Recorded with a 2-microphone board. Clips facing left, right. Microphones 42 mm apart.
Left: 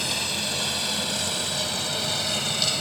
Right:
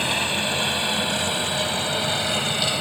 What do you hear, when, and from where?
0.0 s a helicopter: 30° right (ahead or behind); by 2.8 s 20° right (ahead or behind)